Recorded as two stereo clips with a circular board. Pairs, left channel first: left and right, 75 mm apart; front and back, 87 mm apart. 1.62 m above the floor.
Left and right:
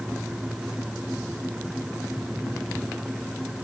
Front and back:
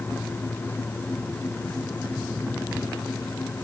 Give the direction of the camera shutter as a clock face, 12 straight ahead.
No camera shutter in this recording.